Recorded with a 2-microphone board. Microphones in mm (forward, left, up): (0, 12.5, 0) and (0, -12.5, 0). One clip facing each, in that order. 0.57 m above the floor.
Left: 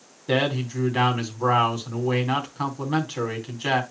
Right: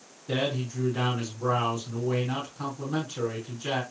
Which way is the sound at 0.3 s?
60° left (ahead or behind).